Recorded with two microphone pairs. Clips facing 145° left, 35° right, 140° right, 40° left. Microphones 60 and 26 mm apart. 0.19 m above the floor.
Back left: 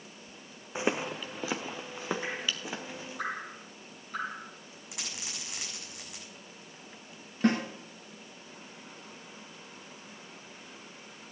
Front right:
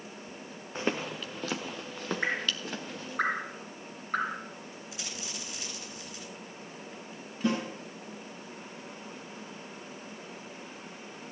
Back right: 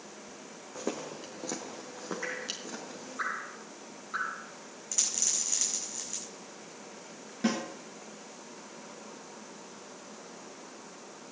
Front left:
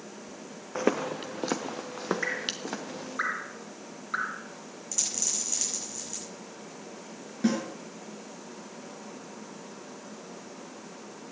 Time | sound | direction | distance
0.8 | footsteps | 70° left | 0.7 m
2.2 | dripping | 15° right | 3 m
4.9 | a dropped coin | 135° left | 6 m
7.4 | a snare drum | 135° left | 3 m